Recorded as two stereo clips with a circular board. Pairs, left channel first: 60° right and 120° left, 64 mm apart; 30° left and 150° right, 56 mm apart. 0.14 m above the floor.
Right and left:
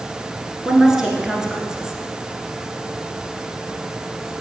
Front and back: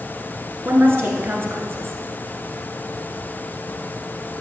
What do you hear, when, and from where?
0.7 s a woman speaking: 165° right, 1.6 m